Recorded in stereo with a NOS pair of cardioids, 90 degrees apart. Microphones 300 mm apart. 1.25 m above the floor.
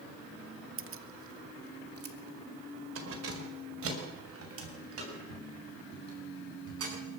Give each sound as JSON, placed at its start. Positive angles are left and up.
{"t": 0.8, "sound": "keys jangling", "azimuth_deg": -45, "distance_m": 1.0}